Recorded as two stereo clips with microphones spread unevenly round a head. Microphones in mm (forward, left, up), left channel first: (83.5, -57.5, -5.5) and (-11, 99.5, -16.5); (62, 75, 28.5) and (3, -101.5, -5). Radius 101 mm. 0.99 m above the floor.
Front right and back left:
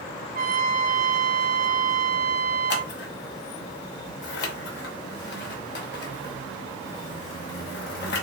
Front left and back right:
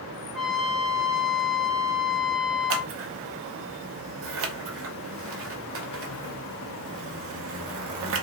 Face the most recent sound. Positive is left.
turn(degrees=-95)